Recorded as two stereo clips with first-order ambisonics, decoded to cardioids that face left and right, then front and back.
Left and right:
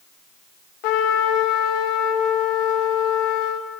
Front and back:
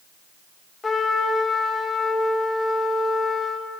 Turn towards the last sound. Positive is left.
turn(degrees=75)